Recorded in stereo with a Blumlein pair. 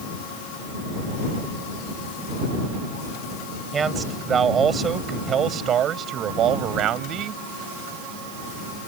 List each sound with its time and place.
3.7 s a man speaking: 20° right; by 7.4 s 35° right